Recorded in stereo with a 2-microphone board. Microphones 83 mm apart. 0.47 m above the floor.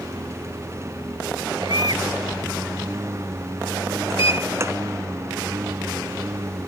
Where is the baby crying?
55° right (ahead or behind).